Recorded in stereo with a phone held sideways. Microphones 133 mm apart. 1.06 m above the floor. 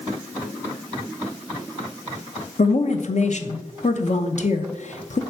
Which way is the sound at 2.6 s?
60° left (ahead or behind).